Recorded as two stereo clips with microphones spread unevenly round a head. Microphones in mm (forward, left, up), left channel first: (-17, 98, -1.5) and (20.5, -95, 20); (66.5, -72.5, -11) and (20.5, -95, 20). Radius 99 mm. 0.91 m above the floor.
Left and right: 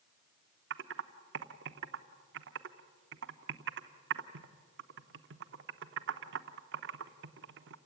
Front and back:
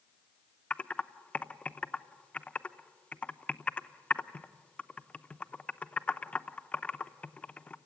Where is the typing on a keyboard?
50° right, 0.9 m.